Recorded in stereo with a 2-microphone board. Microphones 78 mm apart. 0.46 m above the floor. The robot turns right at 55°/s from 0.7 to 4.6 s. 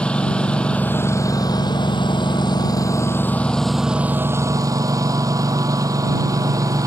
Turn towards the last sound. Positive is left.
turn(degrees=-130)